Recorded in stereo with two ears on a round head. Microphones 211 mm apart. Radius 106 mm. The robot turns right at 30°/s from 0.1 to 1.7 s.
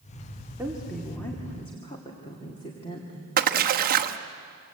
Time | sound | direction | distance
0.6 | a woman speaking | 10° right | 2 m
3.4 | a splash | 40° right (ahead or behind) | 1.0 m